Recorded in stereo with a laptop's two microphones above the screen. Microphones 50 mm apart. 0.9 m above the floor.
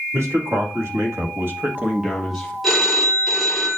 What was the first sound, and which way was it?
A man speaking, 60° right (ahead or behind).